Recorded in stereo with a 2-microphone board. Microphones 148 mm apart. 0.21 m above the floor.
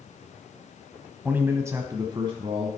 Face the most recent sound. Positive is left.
turn(degrees=-40)  # may be behind; listen again after turning